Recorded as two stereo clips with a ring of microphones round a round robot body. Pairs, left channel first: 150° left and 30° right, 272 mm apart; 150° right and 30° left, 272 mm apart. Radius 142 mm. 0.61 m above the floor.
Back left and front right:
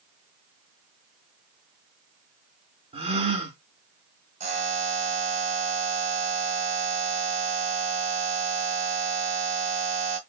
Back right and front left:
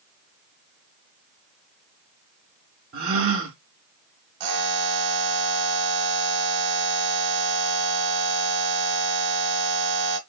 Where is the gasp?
35° left, 1.2 m.